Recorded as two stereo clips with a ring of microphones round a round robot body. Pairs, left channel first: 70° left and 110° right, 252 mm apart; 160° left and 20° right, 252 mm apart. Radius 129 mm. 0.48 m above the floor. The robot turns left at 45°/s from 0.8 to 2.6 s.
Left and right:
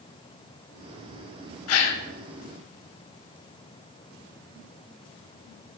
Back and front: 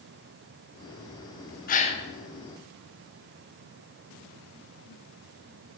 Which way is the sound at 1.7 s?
100° left.